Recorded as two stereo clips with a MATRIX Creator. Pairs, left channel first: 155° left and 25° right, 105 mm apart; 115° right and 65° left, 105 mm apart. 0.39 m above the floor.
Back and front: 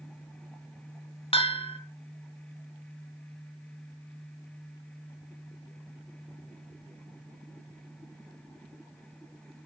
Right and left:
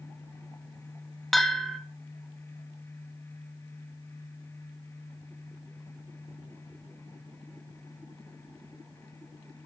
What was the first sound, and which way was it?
A bell, 160° left.